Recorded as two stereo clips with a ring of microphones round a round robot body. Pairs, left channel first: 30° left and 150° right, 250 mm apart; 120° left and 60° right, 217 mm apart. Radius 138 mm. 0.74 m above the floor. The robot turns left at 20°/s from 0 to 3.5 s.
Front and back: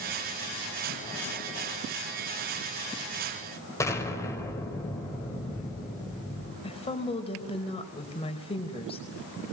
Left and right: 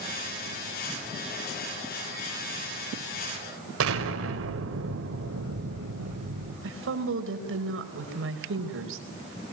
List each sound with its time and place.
3.8 s an explosion: 50° right, 4.5 m
6.6 s a woman speaking: 40° right, 4.5 m